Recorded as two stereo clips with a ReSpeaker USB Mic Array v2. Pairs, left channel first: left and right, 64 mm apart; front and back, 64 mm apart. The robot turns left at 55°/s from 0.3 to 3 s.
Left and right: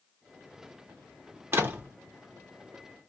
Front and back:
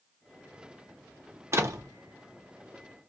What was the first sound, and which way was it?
A door slam, 135° right.